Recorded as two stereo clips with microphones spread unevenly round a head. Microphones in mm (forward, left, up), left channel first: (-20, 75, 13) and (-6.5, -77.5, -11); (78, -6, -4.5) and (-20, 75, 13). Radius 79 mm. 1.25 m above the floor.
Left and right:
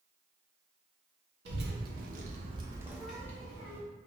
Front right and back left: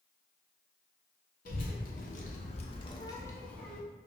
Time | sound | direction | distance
1.4 | a child speaking | 70° right | 1.2 m